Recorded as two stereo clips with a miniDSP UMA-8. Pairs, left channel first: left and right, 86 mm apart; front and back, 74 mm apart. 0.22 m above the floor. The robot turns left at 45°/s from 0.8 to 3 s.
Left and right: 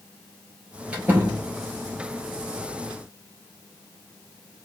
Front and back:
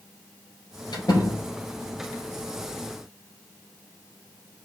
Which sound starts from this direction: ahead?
A door slam, at 0.9 s.